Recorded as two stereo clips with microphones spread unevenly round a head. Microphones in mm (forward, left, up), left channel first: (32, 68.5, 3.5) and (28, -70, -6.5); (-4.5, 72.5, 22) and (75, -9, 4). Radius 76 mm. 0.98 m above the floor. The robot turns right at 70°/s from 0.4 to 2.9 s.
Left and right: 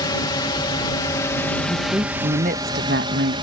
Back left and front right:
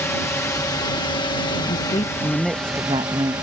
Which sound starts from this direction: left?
A drone, at 0.0 s.